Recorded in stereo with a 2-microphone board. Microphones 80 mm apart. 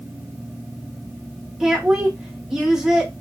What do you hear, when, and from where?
1.6 s a woman speaking: 5° right (ahead or behind), 0.9 m